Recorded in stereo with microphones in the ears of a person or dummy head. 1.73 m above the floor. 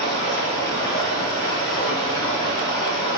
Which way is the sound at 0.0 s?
15° left (ahead or behind).